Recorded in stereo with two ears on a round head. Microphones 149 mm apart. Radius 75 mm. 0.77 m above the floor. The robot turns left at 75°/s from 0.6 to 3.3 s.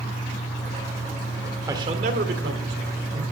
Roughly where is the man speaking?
Ahead.